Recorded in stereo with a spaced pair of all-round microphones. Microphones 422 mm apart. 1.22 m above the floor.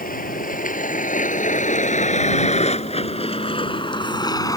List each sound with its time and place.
0.0 s a vehicle: 20° left (ahead or behind); by 4.6 s 10° left (ahead or behind)